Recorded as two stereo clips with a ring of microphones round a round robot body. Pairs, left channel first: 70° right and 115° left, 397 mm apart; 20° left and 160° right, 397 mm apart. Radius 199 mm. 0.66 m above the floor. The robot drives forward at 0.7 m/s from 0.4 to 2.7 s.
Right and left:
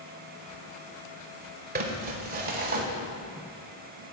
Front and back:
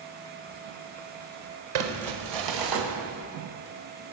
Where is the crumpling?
Straight behind, 1.9 m.